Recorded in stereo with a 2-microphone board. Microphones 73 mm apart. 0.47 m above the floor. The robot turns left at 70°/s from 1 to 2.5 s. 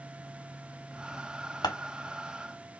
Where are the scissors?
85° left, 1.0 m.